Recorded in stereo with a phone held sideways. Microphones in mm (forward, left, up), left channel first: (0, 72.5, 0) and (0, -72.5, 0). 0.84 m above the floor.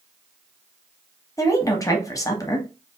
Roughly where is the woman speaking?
Left.